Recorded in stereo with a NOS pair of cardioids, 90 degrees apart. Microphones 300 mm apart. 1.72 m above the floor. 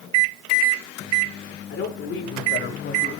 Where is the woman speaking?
55° left, 6 m; by 3.1 s 40° left, 4.5 m.